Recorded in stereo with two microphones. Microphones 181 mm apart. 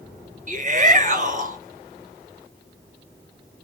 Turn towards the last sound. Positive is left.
turn(degrees=-45)  # may be behind; listen again after turning